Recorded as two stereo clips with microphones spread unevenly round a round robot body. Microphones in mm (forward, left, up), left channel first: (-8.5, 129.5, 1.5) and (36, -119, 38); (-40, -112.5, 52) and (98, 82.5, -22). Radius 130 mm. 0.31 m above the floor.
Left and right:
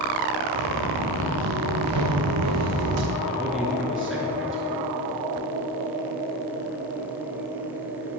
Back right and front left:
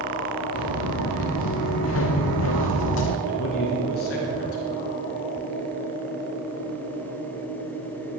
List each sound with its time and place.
0.5 s footsteps: 100° right, 2.5 m; by 3.2 s 115° right, 1.4 m
3.3 s a man speaking: 170° right, 4.5 m